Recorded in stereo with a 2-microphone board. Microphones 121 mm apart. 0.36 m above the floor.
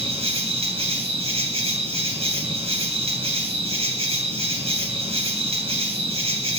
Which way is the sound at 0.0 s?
50° right (ahead or behind).